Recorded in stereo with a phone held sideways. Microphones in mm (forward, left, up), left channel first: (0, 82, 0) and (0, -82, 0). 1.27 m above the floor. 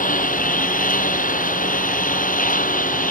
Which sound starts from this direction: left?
A lawn mower, at 0.0 s.